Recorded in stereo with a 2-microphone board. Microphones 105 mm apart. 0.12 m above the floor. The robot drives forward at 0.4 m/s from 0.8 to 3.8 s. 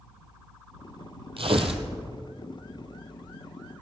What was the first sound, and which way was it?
Tearing paper, 65° right (ahead or behind).